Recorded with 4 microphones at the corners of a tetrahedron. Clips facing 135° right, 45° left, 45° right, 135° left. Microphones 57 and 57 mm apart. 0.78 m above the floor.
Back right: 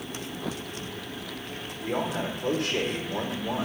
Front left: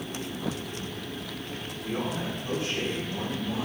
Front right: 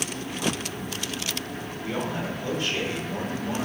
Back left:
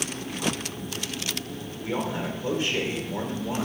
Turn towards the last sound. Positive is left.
turn(degrees=-155)